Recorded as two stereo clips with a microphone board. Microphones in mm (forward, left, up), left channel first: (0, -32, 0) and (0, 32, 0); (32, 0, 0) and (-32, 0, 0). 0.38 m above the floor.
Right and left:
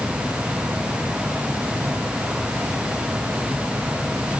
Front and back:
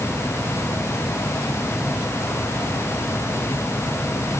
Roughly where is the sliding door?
No sliding door in this recording.